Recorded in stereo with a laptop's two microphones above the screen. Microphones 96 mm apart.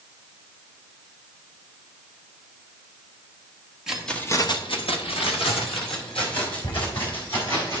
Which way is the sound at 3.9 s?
5° right (ahead or behind).